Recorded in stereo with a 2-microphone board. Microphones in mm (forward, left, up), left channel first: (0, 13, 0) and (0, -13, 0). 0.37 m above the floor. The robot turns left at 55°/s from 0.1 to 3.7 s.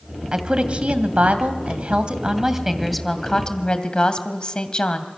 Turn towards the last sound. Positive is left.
turn(degrees=135)